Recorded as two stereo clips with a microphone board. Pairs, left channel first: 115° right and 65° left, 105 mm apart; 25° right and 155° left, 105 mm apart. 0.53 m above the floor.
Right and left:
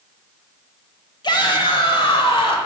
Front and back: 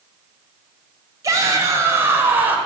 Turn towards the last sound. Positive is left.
turn(degrees=-135)